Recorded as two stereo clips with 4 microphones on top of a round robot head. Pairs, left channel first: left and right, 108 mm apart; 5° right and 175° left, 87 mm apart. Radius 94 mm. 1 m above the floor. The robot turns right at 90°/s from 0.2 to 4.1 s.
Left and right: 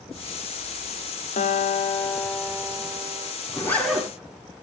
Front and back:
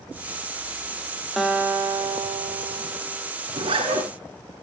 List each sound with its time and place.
1.4 s a guitar: 80° left, 1.8 m; by 3.3 s 100° right, 1.8 m
3.5 s a zipper: 145° left, 6.5 m; by 4.1 s 165° right, 6.5 m